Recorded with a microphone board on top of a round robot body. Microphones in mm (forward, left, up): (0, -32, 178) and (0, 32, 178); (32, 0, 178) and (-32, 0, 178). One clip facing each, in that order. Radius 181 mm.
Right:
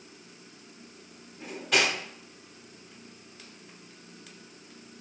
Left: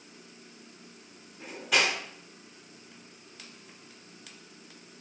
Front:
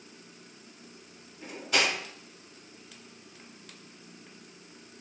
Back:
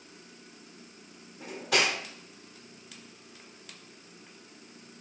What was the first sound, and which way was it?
Cutlery clinking, 175° left.